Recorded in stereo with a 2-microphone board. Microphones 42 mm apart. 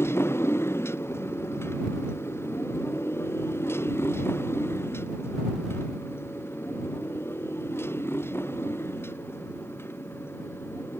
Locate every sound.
0.0 s a motorcycle: 90° left; by 11.0 s 70° left (ahead or behind)